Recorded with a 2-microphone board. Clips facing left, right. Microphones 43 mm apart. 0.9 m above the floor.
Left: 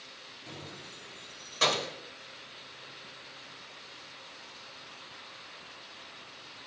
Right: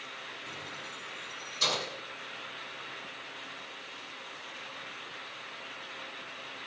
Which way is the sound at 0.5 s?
30° left (ahead or behind).